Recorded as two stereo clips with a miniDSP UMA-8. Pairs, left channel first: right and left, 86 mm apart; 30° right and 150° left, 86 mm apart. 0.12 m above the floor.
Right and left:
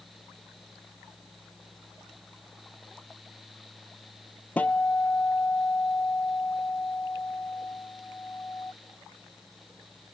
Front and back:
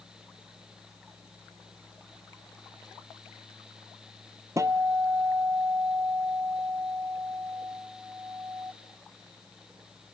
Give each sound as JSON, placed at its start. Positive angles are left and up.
{"t": 4.6, "sound": "a guitar", "azimuth_deg": -160, "distance_m": 0.7}